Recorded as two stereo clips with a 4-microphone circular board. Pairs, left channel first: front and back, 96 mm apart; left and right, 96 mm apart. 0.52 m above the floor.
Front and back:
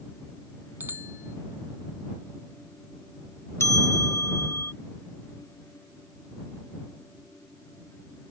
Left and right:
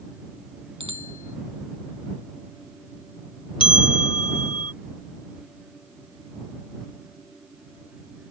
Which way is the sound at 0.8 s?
110° right.